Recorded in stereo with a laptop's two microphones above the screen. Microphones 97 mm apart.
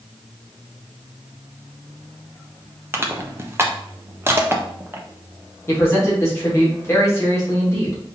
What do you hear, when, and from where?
2.9 s crushing: 25° right (ahead or behind), 0.7 m
5.7 s a man speaking: 25° left (ahead or behind), 1.5 m